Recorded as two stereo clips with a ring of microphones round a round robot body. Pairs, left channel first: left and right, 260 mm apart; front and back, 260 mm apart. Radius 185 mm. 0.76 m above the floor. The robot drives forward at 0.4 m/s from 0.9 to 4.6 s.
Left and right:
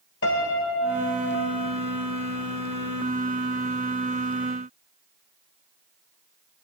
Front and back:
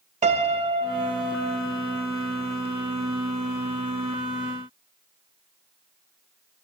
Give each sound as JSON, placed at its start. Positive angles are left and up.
{"t": 0.2, "sound": "a piano", "azimuth_deg": 120, "distance_m": 0.5}